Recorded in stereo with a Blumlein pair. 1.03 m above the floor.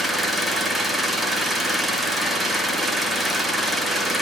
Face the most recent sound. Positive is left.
turn(degrees=-5)